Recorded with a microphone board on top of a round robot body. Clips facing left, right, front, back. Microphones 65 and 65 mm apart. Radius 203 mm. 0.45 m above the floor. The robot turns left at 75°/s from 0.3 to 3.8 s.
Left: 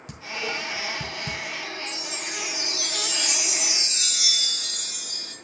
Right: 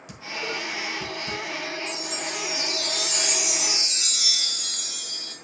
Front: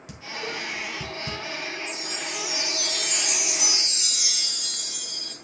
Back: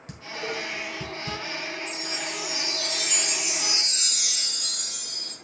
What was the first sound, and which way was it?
Dishes clattering, 130° left.